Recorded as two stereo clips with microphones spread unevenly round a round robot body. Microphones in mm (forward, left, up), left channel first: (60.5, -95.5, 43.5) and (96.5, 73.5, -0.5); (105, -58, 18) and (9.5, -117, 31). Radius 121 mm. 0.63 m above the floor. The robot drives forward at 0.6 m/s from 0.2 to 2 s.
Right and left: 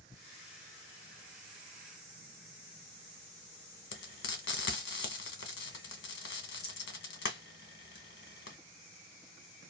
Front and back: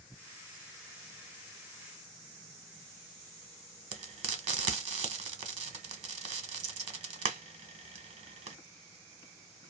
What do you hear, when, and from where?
3.9 s frying: 145° right, 0.8 m